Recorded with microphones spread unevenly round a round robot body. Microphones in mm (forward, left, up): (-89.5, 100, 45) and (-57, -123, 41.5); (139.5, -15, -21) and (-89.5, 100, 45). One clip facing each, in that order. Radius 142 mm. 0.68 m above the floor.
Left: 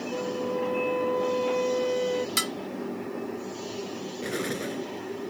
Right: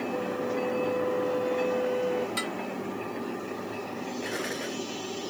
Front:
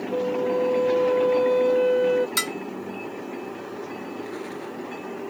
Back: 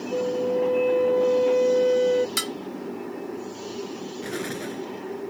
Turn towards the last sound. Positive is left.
turn(degrees=145)